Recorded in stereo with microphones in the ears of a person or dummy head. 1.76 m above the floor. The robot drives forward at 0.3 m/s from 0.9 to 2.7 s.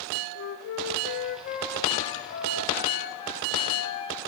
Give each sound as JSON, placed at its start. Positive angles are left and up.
{"t": 0.3, "sound": "a flute", "side_deg": 65, "distance_m": 0.5}